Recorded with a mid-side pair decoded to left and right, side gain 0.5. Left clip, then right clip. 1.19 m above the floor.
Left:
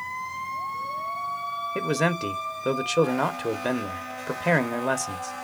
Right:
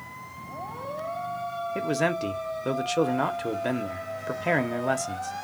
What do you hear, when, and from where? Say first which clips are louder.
1.8 s a man speaking: even; 15° left, 0.8 m